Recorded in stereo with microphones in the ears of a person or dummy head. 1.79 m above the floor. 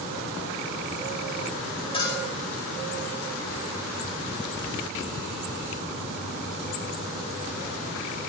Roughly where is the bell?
Left.